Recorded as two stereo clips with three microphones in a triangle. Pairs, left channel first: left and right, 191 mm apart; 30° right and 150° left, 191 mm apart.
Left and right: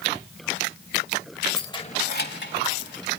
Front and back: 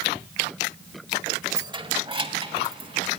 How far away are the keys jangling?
About 0.6 m.